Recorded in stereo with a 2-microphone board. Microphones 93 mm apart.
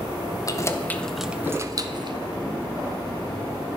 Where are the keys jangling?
40° left (ahead or behind), 1.0 m; by 2.2 s 55° right (ahead or behind), 1.1 m.